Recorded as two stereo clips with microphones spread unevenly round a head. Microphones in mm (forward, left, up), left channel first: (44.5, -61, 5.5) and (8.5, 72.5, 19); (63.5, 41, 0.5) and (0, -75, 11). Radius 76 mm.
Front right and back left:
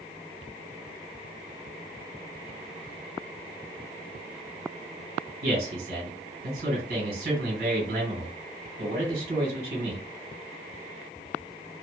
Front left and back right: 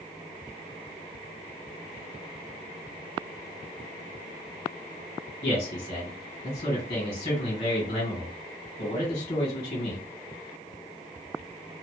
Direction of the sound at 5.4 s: 105° left.